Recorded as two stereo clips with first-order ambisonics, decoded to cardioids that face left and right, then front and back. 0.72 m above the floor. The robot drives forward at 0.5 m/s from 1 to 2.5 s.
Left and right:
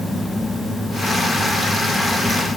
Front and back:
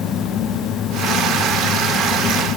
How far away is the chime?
No chime in this recording.